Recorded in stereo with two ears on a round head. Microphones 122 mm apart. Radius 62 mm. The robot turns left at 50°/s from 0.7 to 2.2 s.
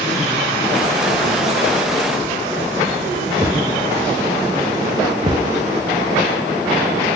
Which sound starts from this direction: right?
A thud, at 3.4 s.